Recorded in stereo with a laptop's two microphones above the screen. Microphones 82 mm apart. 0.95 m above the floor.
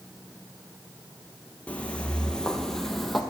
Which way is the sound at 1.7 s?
15° left (ahead or behind).